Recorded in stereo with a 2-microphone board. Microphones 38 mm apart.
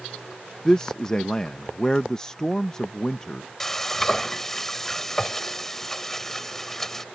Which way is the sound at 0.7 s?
15° left (ahead or behind).